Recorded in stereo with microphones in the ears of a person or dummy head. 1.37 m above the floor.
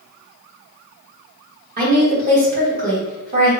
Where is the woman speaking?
40° right (ahead or behind), 1.2 m.